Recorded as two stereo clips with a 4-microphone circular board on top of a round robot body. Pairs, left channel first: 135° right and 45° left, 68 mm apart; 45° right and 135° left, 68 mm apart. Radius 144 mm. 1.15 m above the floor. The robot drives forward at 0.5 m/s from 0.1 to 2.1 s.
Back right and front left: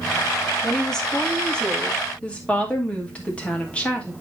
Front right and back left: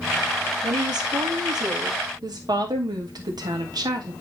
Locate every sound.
0.6 s a woman speaking: 140° left, 1.8 m; by 4.1 s 155° left, 2.5 m